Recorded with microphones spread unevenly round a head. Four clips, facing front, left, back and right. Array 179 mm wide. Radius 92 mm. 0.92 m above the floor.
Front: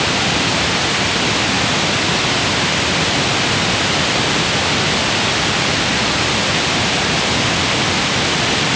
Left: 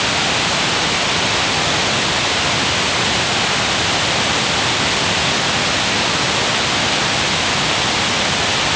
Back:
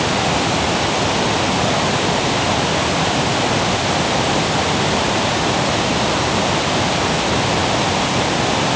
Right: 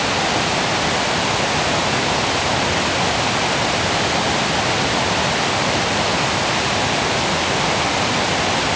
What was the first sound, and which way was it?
Only background noise.